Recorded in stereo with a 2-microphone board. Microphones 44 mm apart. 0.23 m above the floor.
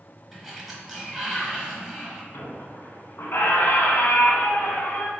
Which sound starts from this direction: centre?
A sliding door, at 0.3 s.